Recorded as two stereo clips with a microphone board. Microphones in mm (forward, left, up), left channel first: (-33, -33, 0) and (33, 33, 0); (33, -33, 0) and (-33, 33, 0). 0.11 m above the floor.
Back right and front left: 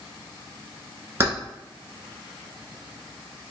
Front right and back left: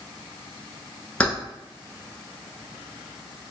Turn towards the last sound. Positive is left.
turn(degrees=20)